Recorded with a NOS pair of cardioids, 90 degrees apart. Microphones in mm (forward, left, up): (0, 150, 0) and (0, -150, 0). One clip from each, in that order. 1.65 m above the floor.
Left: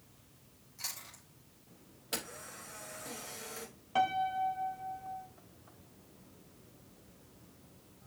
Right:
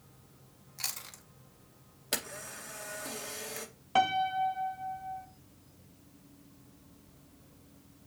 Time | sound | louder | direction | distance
0.8 | chewing | right 4 dB | 55° right | 2 m
2.1 | a camera shutter | right 4 dB | 50° right | 2 m
4.0 | a piano | right 3 dB | 35° right | 0.7 m